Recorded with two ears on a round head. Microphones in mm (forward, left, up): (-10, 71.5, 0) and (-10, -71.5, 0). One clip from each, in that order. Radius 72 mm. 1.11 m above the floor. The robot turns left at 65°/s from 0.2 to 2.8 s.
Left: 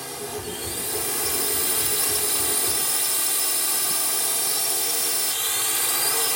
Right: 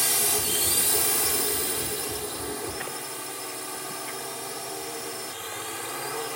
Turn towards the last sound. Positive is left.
turn(degrees=80)